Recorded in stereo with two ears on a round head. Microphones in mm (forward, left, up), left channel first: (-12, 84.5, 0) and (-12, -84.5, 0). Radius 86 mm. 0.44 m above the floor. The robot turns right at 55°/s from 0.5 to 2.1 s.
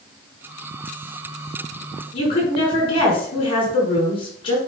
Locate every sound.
2.1 s a woman speaking: 30° left (ahead or behind), 5 m